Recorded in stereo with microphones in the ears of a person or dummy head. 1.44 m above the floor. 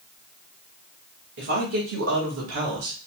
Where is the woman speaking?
70° right (ahead or behind), 2 m; by 3.0 s 85° right, 2 m.